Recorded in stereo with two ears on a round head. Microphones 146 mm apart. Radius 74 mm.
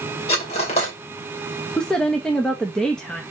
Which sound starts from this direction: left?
Cutlery clinking, at 0.3 s.